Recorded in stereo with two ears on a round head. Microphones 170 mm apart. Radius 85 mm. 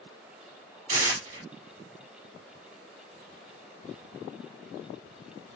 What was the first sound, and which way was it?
Tearing paper, 40° right (ahead or behind).